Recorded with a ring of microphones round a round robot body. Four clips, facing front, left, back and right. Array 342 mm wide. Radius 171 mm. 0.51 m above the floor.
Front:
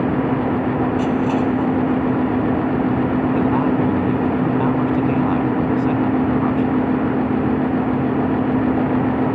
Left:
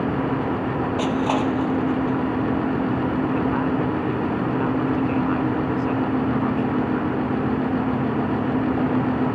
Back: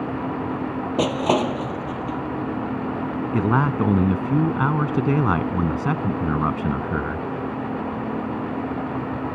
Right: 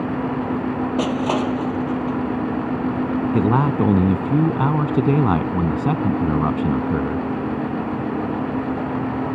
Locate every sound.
1.0 s crushing: 155° right
3.3 s a man speaking: 110° right